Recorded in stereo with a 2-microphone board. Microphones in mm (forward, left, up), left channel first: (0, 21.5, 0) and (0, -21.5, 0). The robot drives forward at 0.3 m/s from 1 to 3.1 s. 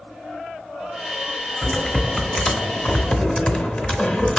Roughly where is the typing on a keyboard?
Centre.